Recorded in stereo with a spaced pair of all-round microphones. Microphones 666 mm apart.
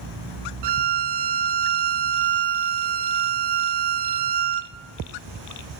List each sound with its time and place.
0.6 s a violin: 80° right, 0.5 m